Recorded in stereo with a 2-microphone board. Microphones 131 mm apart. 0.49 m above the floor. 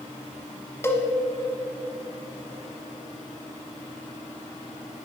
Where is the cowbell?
20° left (ahead or behind), 1.3 m.